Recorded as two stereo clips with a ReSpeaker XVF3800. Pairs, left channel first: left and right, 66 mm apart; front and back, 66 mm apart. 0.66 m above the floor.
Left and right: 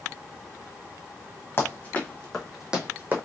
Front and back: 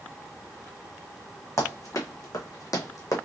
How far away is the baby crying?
I don't hear a baby crying.